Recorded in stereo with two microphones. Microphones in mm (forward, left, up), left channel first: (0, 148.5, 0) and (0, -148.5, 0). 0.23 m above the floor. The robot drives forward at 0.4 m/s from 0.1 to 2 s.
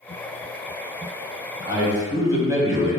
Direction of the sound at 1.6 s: 10° right (ahead or behind).